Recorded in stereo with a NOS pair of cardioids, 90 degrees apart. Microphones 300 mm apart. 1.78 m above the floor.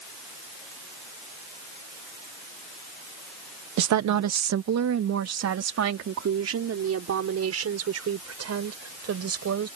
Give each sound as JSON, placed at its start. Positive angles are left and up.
{"t": 3.8, "sound": "a woman speaking", "azimuth_deg": -70}